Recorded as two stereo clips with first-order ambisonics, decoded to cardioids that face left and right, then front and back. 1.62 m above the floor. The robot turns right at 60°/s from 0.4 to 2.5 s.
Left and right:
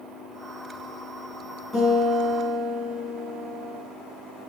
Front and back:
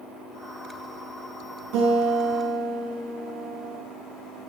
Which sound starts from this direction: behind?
A guitar, at 1.7 s.